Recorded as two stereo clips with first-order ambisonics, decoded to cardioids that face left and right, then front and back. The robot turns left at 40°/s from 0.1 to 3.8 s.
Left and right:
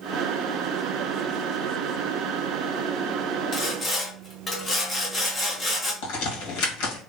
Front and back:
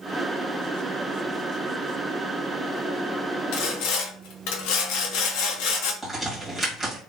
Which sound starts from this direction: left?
A crack, at 6.0 s.